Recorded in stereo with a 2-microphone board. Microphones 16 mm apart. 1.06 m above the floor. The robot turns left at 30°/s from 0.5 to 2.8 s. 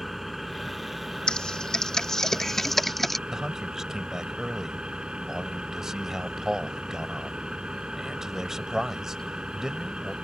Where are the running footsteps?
No running footsteps in this recording.